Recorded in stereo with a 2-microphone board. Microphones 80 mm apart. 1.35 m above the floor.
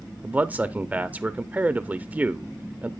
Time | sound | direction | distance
0.2 | a man speaking | 20° right (ahead or behind) | 0.6 m